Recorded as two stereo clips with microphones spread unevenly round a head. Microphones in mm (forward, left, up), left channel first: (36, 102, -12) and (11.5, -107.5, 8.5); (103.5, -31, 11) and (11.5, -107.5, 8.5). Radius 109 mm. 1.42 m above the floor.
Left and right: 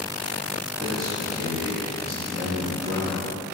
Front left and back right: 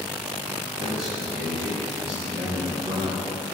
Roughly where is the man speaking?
Behind.